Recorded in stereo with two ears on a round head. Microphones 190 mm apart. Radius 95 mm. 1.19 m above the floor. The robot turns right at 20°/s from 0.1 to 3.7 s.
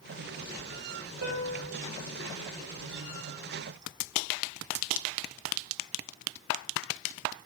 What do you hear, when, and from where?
1.2 s a piano: 85° right, 3 m; by 1.7 s 80° right, 3 m